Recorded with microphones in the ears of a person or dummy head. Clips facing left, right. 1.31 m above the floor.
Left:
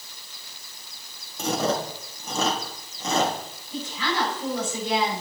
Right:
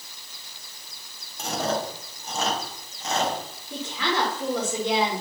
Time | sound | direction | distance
1.4 | chewing | 80° left | 2 m
3.7 | a woman speaking | 50° right (ahead or behind) | 5 m